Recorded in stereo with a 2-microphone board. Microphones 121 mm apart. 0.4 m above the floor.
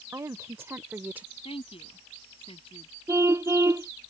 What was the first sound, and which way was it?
A woman speaking, 25° right (ahead or behind).